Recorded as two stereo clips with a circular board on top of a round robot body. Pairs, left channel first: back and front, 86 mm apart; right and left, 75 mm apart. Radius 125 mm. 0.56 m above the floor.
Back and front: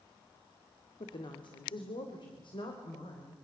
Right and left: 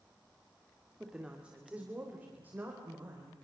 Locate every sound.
1.0 s a woman speaking: 170° left, 2.5 m; by 3.4 s 155° left, 4.5 m